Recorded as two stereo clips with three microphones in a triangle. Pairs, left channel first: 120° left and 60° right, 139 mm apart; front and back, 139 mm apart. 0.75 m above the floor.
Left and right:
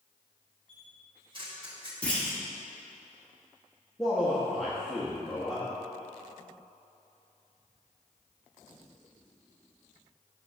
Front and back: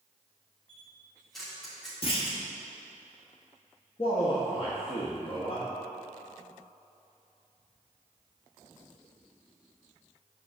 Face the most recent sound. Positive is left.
turn(degrees=30)